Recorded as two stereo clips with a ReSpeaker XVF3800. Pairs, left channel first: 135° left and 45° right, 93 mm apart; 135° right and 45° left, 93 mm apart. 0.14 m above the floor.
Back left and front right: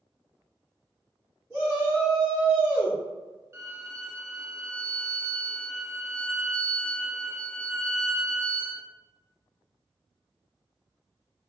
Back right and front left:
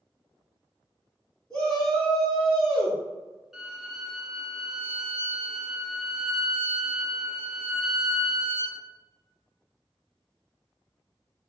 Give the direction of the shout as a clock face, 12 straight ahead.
2 o'clock.